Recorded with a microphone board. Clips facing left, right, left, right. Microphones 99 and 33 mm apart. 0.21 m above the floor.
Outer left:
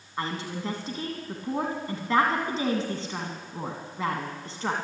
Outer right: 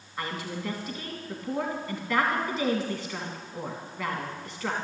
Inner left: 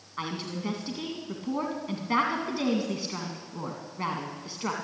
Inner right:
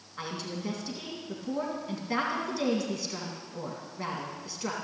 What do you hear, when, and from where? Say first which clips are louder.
0.2 s a woman speaking: outer left 2 dB, inner left 2 dB; 30° left (ahead or behind), 1.9 m